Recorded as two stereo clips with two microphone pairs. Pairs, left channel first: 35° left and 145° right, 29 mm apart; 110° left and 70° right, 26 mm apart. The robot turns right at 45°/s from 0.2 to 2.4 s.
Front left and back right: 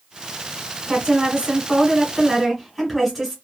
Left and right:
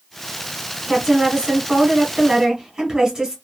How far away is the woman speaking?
About 1.5 m.